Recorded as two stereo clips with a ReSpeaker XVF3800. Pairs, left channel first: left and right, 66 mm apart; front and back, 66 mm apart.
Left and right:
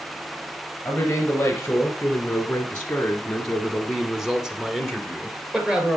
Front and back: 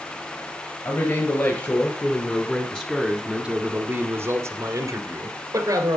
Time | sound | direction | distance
0.8 | a man speaking | 30° left | 2 m